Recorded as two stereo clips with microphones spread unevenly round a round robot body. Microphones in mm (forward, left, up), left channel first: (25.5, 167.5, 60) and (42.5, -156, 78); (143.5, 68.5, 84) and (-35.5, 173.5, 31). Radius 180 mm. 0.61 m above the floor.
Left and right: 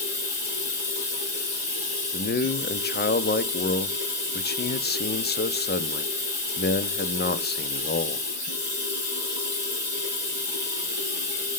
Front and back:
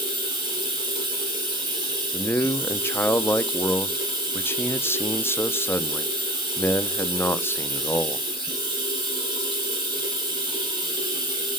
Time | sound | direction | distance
0.0 | running water | 80° left | 3.5 m
2.1 | a man speaking | 65° left | 0.6 m